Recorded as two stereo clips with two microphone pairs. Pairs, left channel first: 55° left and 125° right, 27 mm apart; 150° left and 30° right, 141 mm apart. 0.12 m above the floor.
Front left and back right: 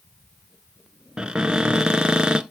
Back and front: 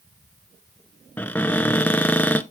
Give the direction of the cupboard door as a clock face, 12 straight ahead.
5 o'clock.